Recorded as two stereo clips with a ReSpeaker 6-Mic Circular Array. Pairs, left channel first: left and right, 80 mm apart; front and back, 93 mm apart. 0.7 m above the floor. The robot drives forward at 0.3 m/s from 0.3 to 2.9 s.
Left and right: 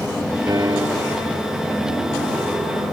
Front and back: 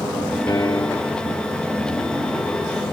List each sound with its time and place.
0.5 s a piano: 50° right